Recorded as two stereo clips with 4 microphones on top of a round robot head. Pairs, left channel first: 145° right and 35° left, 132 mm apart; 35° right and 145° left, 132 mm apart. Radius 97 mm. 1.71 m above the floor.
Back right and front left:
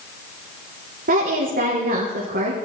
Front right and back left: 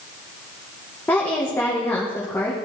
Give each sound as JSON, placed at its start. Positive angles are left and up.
{"t": 1.1, "sound": "a woman speaking", "azimuth_deg": 40, "distance_m": 2.5}